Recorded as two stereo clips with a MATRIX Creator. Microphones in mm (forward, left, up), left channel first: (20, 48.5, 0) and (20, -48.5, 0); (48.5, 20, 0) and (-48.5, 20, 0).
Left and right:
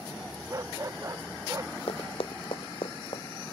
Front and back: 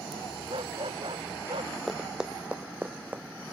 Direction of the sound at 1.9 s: 90° left.